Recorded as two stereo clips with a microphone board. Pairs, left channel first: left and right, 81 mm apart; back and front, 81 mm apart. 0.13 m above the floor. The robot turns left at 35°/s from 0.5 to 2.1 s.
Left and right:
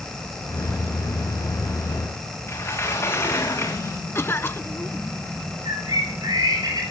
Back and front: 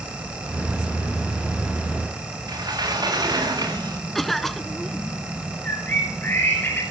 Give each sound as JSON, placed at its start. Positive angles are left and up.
{"t": 2.5, "sound": "a sliding door", "azimuth_deg": 35, "distance_m": 7.5}
{"t": 4.2, "sound": "a cough", "azimuth_deg": 95, "distance_m": 1.3}
{"t": 5.7, "sound": "a bird", "azimuth_deg": -115, "distance_m": 8.5}